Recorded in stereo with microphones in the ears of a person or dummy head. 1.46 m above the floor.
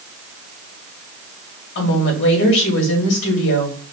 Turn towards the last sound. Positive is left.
turn(degrees=60)  # may be behind; listen again after turning